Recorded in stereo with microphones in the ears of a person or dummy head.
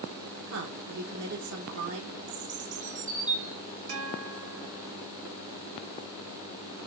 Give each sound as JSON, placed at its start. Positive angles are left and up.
{"t": 0.5, "sound": "a woman speaking", "side_deg": -80, "distance_m": 3.0}
{"t": 2.3, "sound": "a bird", "side_deg": -40, "distance_m": 1.0}
{"t": 3.9, "sound": "a guitar", "side_deg": -80, "distance_m": 3.0}